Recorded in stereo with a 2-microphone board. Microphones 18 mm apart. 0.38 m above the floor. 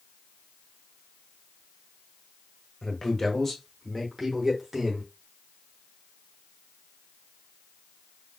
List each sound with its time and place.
2.8 s a man speaking: 35° left (ahead or behind), 1.2 m; by 5.0 s 30° right (ahead or behind), 1.2 m